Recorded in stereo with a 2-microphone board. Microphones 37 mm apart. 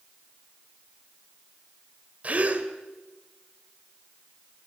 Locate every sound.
2.2 s a gasp: 40° right (ahead or behind), 2.5 m